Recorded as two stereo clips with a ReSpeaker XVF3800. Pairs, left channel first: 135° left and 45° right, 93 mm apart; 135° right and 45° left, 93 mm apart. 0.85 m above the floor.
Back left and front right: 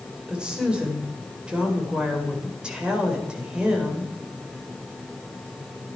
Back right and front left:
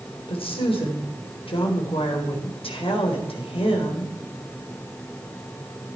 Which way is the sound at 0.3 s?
125° right.